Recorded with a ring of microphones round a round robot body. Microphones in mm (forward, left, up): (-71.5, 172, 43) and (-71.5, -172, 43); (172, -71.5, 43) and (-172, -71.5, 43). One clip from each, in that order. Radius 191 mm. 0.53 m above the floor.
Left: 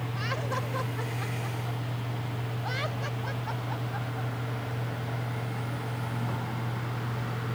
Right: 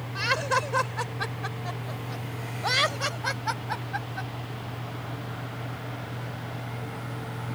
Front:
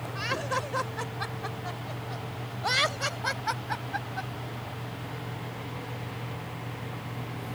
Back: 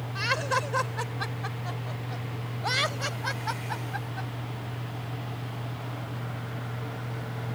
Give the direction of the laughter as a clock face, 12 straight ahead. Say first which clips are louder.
Right 9 dB, back 4 dB; 4 o'clock.